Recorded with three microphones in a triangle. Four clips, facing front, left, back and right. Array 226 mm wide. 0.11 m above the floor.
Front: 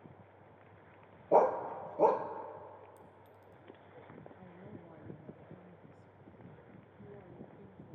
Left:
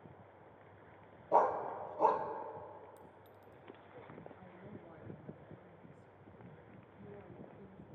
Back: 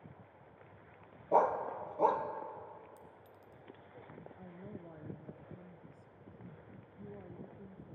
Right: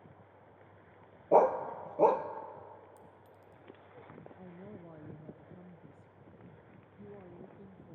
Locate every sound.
1.3 s a dog barking: 65° right, 1.1 m
3.0 s a clink: 170° left, 1.3 m
4.4 s a woman speaking: 105° right, 1.3 m